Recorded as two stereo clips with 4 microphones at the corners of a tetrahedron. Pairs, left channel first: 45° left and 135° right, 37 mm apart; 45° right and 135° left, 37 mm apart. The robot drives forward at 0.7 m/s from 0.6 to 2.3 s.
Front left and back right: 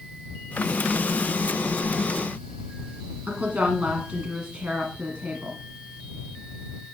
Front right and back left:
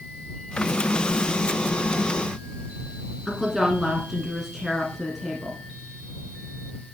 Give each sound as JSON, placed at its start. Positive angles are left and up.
{"t": 3.3, "sound": "a woman speaking", "azimuth_deg": -145, "distance_m": 1.6}